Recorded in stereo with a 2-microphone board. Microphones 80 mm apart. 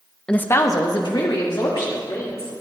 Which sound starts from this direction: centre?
A woman speaking, at 0.3 s.